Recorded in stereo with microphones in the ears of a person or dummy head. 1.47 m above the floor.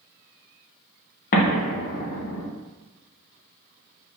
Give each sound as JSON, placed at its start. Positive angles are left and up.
{"t": 1.3, "sound": "an explosion", "side_deg": 50, "distance_m": 0.7}